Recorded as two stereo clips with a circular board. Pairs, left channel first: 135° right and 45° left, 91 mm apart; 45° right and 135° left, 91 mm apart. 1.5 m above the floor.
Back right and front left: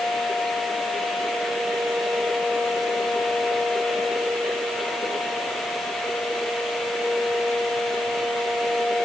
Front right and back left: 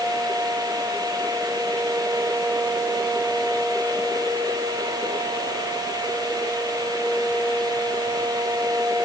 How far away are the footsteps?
I don't hear footsteps.